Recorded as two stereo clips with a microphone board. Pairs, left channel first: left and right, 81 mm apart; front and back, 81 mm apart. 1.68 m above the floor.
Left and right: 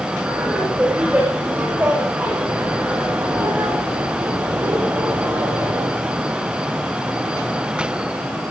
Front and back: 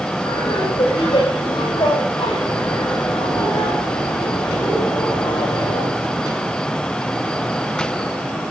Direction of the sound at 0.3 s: 15° right.